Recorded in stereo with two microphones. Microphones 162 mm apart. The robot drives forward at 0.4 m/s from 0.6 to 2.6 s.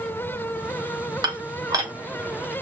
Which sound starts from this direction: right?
Dishes clattering, at 1.2 s.